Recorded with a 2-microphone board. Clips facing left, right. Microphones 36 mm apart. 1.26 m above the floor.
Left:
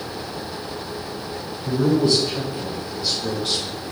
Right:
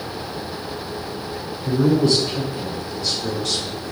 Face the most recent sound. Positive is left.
turn(degrees=20)  # may be behind; listen again after turning